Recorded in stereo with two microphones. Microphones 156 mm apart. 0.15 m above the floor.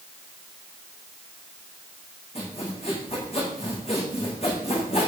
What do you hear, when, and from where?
2.4 s sawing: 40° left (ahead or behind), 7.5 m